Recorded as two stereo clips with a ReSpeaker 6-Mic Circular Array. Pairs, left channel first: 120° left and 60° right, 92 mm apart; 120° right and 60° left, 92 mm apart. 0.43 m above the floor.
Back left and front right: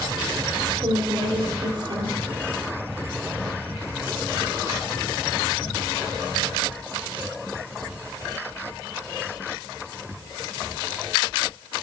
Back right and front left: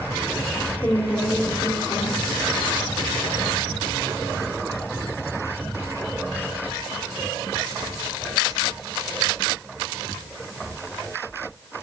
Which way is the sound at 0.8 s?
50° right.